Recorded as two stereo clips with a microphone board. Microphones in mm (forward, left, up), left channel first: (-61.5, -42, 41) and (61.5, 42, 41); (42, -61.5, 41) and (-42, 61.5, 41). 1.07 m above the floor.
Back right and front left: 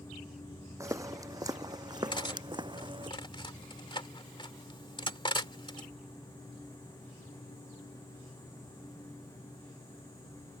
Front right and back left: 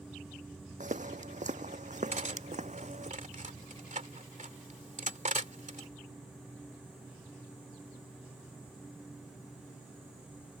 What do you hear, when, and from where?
0.8 s footsteps: 100° left; by 3.1 s 90° left
2.1 s cutlery clinking: 155° left